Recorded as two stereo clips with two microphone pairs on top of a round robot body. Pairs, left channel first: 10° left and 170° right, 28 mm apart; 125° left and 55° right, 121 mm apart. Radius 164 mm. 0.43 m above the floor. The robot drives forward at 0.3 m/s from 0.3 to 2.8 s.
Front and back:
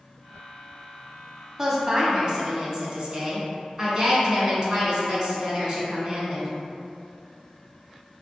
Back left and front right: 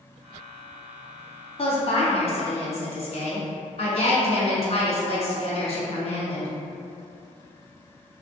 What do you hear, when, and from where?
1.6 s a woman speaking: 135° left, 1.0 m; by 6.5 s 150° left, 1.2 m